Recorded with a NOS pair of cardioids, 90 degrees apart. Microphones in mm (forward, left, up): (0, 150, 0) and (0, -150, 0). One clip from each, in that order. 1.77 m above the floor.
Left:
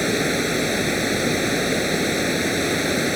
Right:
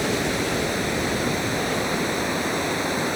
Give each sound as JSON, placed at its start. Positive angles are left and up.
{"t": 0.0, "sound": "running water", "azimuth_deg": 35}